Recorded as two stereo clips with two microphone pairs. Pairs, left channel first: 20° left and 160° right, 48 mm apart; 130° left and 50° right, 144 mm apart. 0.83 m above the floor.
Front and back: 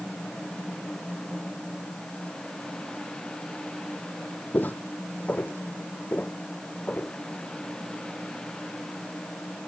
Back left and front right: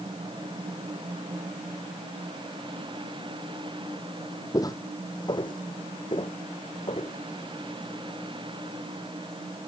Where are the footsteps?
65° left; by 7.2 s 80° left.